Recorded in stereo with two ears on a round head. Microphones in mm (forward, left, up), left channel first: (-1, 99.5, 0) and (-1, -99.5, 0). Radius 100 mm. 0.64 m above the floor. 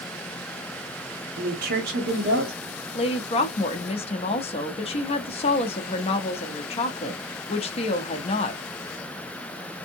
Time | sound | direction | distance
1.4 | a woman speaking | 45° right (ahead or behind) | 0.9 m
3.0 | a woman speaking | 25° left (ahead or behind) | 0.5 m